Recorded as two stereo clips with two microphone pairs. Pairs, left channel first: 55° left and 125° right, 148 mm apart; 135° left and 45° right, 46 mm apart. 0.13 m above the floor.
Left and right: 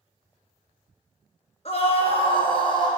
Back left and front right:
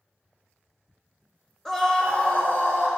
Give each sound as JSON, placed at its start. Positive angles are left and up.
{"t": 1.6, "sound": "a scream", "azimuth_deg": 55, "distance_m": 2.0}